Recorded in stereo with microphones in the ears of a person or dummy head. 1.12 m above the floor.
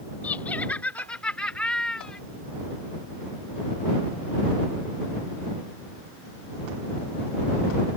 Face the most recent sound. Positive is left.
turn(degrees=10)  # may be behind; listen again after turning